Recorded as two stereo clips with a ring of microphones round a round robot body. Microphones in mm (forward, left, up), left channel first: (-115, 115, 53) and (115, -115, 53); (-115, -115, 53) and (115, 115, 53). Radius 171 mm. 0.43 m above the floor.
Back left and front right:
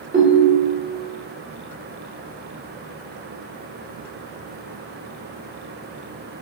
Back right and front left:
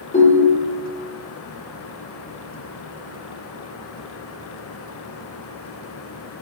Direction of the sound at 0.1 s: 80° right.